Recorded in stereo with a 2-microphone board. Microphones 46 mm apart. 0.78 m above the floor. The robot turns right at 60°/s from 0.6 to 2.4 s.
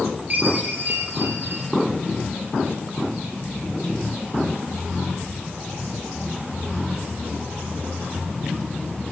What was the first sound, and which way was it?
A chime, 140° right.